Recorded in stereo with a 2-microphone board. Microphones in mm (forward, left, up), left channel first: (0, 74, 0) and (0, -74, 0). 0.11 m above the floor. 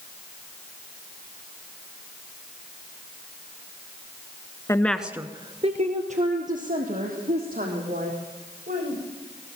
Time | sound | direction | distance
4.7 | a woman speaking | 20° left (ahead or behind) | 1.1 m